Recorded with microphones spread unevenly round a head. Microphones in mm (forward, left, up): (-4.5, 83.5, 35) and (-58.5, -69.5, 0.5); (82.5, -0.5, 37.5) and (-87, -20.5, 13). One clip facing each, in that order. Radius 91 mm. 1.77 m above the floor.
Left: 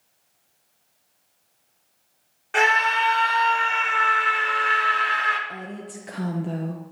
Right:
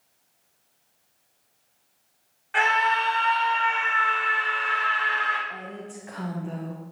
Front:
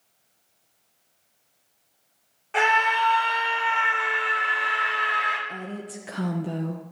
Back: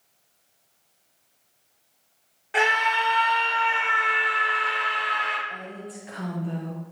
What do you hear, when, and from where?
2.5 s a scream: 105° left, 5 m; by 5.4 s 90° left, 4 m
5.5 s a woman speaking: 30° left, 1.2 m